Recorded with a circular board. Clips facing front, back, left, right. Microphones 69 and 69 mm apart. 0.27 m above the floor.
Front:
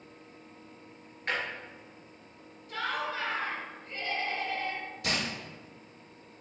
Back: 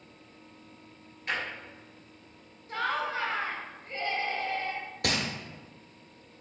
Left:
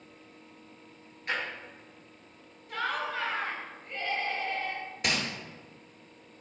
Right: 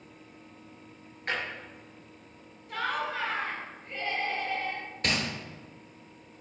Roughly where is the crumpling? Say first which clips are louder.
Back 3 dB, right 1 dB; behind.